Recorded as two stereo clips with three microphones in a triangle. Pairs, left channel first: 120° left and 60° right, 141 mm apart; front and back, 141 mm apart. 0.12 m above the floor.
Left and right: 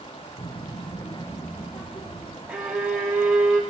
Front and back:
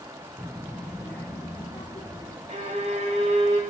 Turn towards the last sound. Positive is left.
turn(degrees=-145)